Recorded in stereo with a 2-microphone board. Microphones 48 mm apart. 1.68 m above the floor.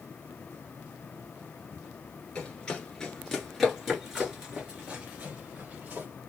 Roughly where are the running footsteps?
Centre.